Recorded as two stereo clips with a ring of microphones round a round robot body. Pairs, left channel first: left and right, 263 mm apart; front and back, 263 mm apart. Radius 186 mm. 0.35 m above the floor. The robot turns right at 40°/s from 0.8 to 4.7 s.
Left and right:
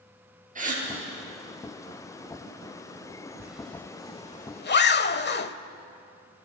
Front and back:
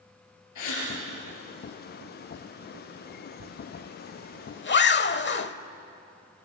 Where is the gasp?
30° right, 8 m.